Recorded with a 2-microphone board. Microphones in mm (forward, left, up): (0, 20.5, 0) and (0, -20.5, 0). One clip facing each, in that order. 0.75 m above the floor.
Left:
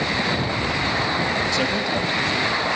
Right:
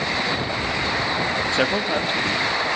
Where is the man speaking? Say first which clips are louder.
Right 1 dB; 35° right (ahead or behind), 0.9 m.